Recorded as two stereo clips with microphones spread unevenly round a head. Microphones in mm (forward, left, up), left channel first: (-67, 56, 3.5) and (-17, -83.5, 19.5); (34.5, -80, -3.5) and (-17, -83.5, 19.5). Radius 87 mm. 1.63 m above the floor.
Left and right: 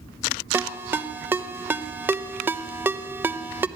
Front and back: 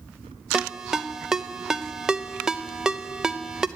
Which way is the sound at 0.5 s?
135° right.